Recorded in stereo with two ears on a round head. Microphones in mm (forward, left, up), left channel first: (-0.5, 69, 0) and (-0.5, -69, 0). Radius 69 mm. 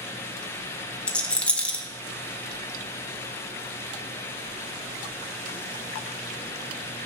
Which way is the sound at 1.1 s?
10° left (ahead or behind).